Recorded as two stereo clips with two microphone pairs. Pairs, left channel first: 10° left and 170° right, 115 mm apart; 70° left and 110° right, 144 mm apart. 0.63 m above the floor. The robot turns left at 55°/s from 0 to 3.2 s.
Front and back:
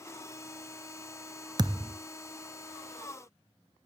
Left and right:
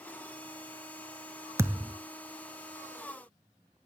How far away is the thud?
About 0.7 m.